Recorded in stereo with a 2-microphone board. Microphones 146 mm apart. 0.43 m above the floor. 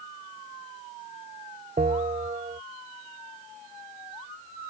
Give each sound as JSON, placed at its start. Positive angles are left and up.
{"t": 1.8, "sound": "a bell", "side_deg": -65}